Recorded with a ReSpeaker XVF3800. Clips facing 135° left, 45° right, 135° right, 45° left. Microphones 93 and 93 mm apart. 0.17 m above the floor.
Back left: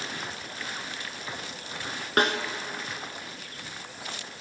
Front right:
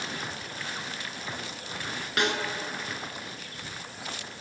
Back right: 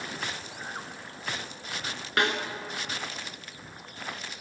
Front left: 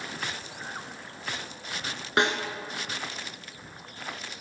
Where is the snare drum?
105° left, 0.9 m.